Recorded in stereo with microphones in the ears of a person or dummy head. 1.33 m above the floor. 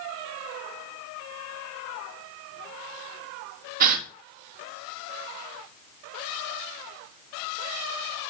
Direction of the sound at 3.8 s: 50° right (ahead or behind).